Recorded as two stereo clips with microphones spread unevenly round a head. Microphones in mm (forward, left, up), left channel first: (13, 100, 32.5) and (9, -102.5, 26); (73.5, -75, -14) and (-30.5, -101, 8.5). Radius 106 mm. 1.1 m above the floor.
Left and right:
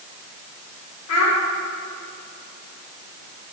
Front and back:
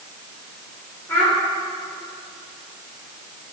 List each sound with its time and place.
1.1 s a child speaking: 95° left, 2.5 m